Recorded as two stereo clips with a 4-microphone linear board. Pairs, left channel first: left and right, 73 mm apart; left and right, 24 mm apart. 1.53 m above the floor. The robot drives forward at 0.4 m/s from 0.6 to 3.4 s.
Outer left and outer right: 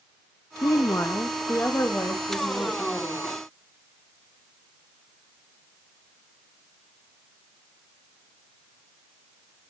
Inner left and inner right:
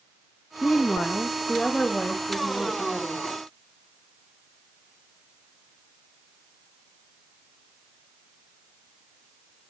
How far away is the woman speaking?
About 0.5 m.